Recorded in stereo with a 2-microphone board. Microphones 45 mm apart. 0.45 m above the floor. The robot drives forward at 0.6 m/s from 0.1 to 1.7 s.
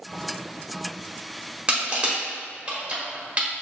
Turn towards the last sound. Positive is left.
turn(degrees=-25)  # may be behind; listen again after turning